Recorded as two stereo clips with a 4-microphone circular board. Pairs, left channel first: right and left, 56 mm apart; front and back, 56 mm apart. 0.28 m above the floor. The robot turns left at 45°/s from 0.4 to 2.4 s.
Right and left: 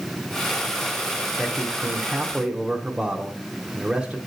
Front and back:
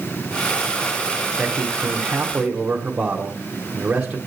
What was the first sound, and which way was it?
A man speaking, straight behind.